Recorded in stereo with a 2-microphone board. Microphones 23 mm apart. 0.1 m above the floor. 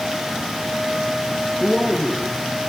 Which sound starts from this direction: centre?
A man speaking, at 1.6 s.